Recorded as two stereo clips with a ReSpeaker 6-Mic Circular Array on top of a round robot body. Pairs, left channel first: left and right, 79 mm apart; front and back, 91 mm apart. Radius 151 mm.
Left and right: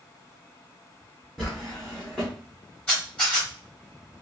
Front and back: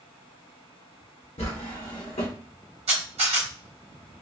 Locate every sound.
1.4 s a drawer: 10° left, 0.8 m
2.9 s a camera shutter: 170° left, 0.9 m